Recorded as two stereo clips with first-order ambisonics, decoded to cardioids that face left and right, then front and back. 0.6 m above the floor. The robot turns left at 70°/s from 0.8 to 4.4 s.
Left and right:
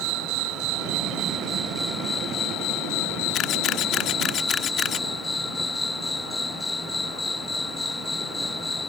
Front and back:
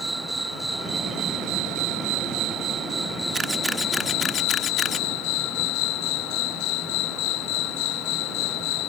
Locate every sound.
0.0 s an insect: 100° right; by 8.9 s 10° left
3.3 s a camera shutter: 125° left; by 5.1 s 50° left